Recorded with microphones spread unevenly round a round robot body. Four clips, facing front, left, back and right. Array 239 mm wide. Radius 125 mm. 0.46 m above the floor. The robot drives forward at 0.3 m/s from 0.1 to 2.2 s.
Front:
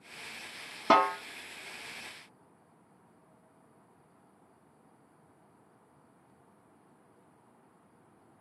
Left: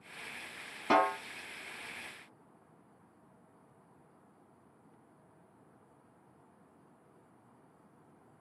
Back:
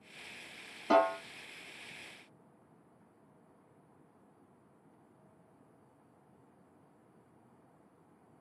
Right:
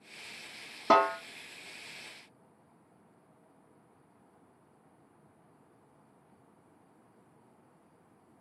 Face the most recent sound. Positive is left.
turn(degrees=-90)